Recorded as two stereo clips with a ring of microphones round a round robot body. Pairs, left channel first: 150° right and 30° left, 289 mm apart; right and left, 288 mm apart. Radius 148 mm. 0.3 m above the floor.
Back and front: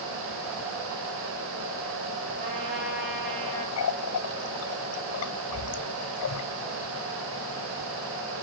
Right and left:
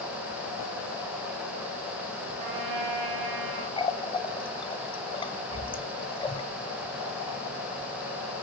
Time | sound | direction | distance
2.4 | a trumpet | 80° left | 7 m
3.8 | a running tap | 160° right | 1.3 m